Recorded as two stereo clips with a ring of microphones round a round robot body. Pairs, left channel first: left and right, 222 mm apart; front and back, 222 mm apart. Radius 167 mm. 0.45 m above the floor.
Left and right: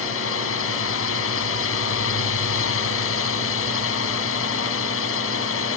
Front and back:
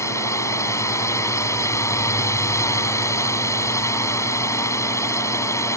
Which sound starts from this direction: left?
A drone, at 0.0 s.